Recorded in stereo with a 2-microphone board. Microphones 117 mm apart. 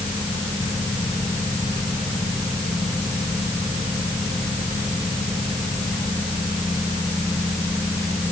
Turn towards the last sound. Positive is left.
No sound to turn to.